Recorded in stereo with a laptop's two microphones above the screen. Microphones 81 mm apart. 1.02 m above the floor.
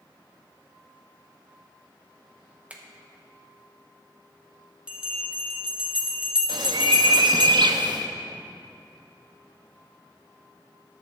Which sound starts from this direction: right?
A bird, at 6.5 s.